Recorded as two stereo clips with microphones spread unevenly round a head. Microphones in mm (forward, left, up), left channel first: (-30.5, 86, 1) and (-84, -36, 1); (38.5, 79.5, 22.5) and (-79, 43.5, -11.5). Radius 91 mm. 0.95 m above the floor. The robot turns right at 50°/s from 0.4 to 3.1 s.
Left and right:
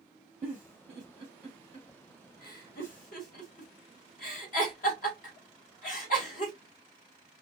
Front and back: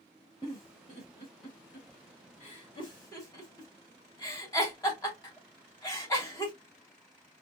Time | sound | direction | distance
0.4 | a giggle | 55° right | 2 m